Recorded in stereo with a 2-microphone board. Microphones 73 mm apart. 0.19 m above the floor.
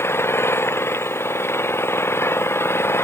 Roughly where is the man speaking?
No man speaking in this recording.